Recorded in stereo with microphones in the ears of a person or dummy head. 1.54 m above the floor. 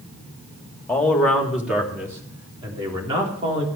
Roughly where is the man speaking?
Centre.